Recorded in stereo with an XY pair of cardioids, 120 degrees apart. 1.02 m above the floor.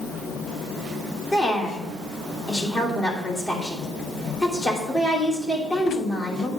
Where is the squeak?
No squeak in this recording.